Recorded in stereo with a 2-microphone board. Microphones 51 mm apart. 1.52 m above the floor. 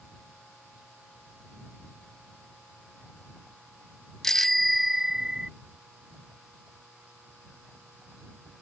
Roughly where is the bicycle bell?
Centre.